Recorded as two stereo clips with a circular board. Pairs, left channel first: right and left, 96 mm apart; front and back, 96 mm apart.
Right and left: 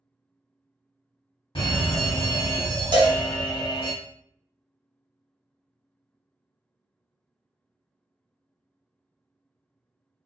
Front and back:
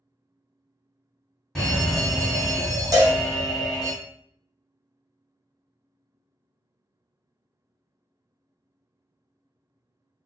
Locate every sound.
1.6 s a fire alarm: 80° right, 1.5 m
2.9 s a cowbell: 125° left, 0.6 m